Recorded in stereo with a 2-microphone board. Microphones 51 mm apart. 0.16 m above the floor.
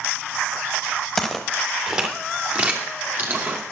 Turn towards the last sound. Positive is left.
turn(degrees=-40)  # may be behind; listen again after turning